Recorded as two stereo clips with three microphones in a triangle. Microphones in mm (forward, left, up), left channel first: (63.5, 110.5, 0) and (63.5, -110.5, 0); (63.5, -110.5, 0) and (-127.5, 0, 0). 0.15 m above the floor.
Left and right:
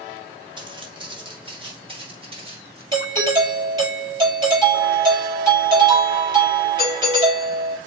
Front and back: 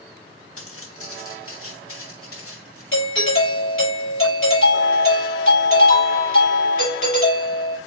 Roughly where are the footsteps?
Ahead.